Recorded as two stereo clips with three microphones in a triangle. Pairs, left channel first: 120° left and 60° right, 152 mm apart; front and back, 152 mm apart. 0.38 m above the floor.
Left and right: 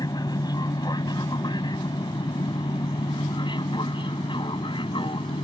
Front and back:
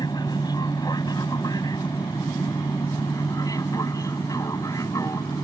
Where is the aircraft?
60° left; by 5.4 s 65° left.